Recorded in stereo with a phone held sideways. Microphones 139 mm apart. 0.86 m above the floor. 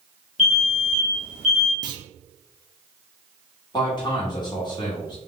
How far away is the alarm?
About 2 m.